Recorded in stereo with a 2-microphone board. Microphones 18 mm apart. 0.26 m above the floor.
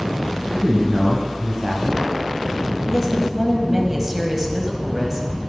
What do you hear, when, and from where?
0.5 s a man speaking: 45° right (ahead or behind), 1.4 m; by 2.8 s 15° right (ahead or behind), 2.0 m
2.9 s a woman speaking: 20° right (ahead or behind), 1.1 m